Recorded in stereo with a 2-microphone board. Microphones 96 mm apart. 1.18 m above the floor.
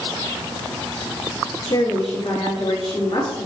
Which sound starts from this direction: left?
A woman speaking, at 1.7 s.